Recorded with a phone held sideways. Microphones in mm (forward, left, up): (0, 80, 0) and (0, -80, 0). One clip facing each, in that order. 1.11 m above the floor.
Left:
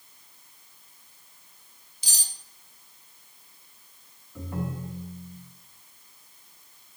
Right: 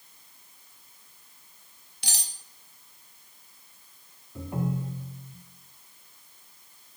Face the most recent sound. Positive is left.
turn(degrees=-20)  # may be behind; listen again after turning